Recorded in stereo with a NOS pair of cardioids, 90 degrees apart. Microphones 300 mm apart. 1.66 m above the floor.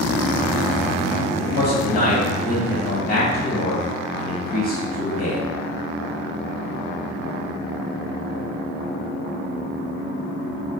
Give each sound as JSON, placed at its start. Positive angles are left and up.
{"t": 1.3, "sound": "a man speaking", "azimuth_deg": 55, "distance_m": 2.0}